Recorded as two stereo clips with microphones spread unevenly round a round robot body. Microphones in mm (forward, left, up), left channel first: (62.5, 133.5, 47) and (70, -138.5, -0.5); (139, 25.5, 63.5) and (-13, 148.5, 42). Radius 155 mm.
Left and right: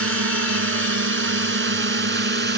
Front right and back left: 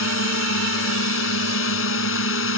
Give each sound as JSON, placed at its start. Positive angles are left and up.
{"t": 0.0, "sound": "a drone", "azimuth_deg": -50}